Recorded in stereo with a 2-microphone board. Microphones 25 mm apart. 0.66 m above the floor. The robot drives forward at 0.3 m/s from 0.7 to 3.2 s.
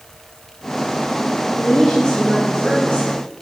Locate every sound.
1.6 s a woman speaking: 80° left, 4 m; by 3.2 s 75° left (ahead or behind), 4 m